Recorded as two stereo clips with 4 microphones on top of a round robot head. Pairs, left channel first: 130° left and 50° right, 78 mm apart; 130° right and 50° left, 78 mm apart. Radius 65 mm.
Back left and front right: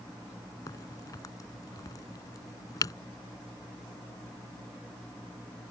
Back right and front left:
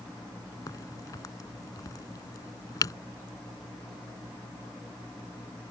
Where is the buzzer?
No buzzer in this recording.